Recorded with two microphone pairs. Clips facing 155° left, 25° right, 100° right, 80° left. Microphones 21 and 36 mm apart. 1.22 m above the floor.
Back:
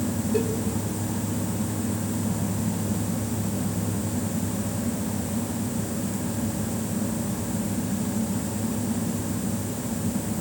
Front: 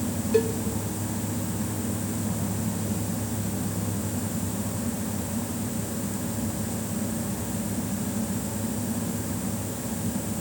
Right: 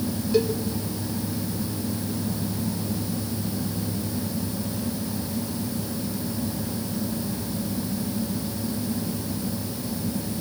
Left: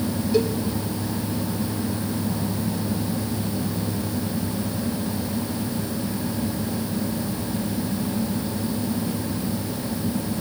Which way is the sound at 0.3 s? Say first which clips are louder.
Front 4 dB, even; 10° right.